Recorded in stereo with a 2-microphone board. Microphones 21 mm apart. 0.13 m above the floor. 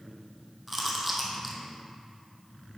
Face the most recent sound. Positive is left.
turn(degrees=-10)  # may be behind; listen again after turning